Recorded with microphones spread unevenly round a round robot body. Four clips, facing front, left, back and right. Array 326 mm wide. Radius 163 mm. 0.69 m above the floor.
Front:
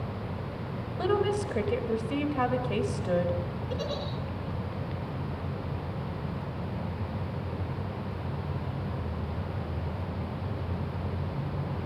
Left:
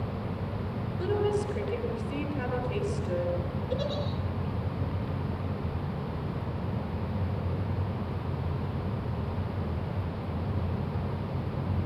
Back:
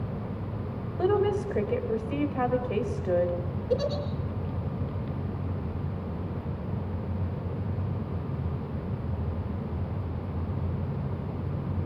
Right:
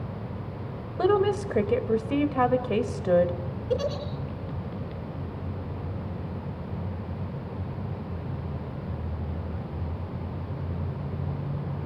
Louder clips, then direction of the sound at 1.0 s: Right 6 dB, back 2 dB; 75° right.